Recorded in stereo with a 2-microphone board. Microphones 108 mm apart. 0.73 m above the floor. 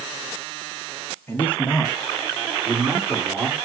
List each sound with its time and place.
1.3 s a man speaking: 20° left (ahead or behind), 1.4 m; by 3.5 s 25° right (ahead or behind), 2.5 m